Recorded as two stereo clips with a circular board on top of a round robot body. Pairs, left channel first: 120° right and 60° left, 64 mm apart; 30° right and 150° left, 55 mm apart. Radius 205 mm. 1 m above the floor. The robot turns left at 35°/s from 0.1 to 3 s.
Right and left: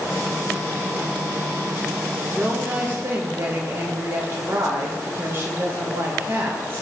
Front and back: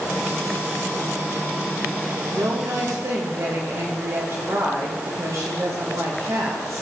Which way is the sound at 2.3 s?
140° left.